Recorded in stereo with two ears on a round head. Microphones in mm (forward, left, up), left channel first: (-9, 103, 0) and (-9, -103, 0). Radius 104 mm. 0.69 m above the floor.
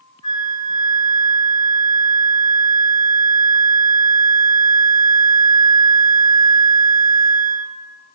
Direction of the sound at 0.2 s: 20° left (ahead or behind).